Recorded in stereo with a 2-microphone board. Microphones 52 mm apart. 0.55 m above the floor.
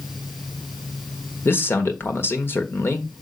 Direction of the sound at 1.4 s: 55° left (ahead or behind).